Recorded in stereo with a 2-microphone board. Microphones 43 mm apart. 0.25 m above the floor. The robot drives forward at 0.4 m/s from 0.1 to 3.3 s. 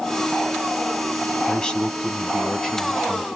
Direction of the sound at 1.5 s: 20° left (ahead or behind).